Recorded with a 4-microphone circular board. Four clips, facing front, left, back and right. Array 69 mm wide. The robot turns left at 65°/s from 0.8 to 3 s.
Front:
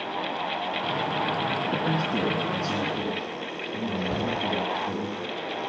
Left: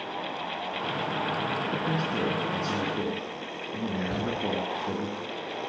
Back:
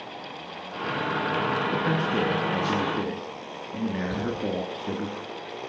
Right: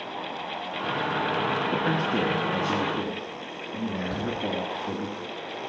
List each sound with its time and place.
1.7 s a man speaking: 100° right, 1.4 m; by 5.1 s straight behind, 1.4 m
4.1 s a shout: 30° left, 4 m